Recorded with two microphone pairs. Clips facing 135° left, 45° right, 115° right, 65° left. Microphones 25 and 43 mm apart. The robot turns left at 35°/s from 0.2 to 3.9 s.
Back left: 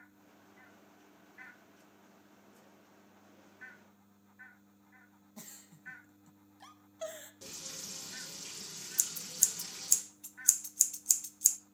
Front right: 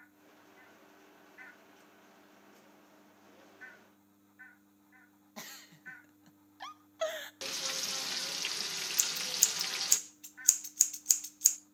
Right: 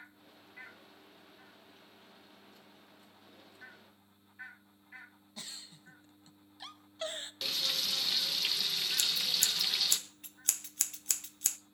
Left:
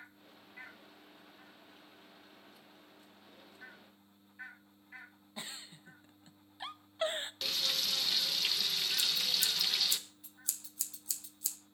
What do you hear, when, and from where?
5.4 s a giggle: 5° left, 0.7 m
7.4 s frying: 25° right, 1.6 m
9.0 s scissors: 115° right, 0.5 m